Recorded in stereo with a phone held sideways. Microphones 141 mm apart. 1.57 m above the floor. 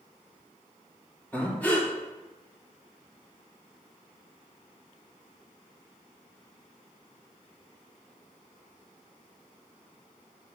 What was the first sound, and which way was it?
Breathing, 10° left (ahead or behind).